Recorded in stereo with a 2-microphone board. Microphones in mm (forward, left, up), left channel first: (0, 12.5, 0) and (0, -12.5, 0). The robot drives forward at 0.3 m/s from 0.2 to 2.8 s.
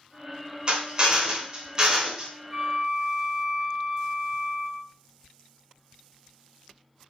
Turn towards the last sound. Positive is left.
turn(degrees=-25)  # may be behind; listen again after turning